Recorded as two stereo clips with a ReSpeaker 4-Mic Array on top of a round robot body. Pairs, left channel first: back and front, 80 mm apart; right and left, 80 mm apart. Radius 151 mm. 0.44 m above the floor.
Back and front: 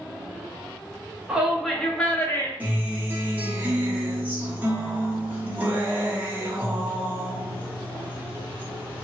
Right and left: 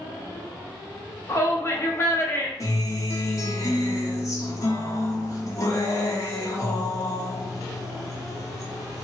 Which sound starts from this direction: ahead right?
A guitar, at 2.6 s.